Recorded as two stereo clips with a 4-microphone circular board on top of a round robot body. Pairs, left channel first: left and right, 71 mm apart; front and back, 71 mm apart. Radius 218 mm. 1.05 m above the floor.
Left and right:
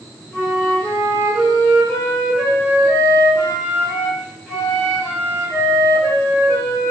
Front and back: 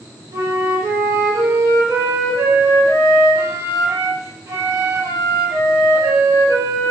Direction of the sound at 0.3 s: 160° left.